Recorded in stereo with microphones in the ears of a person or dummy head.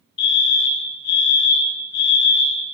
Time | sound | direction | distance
0.2 | a fire alarm | 60° left (ahead or behind) | 2.5 m